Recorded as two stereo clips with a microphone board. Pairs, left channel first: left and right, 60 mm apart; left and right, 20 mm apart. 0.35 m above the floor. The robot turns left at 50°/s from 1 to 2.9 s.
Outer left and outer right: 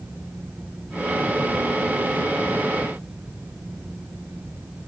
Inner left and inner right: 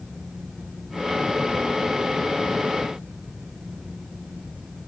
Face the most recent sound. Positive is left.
No sound to turn to.